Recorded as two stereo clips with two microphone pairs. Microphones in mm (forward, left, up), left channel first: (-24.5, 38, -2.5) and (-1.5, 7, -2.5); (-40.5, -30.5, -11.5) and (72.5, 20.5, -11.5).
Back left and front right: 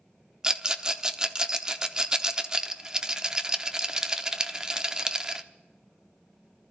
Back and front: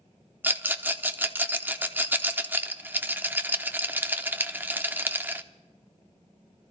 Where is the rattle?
15° right, 0.6 m.